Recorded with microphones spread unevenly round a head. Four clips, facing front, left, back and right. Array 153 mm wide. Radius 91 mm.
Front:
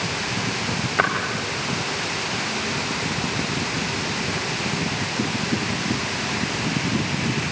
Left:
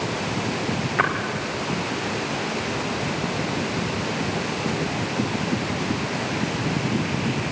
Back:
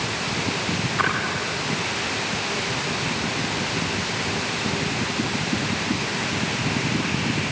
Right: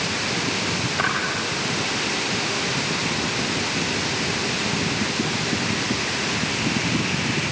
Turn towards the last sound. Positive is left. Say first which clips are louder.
# left 3 dB, front 2 dB
turn(degrees=35)